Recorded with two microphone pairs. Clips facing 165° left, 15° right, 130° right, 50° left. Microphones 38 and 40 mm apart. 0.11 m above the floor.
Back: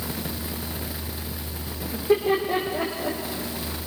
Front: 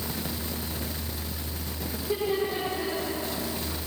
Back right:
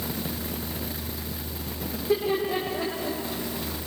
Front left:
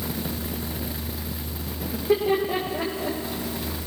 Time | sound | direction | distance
1.9 | laughter | 115° left | 5 m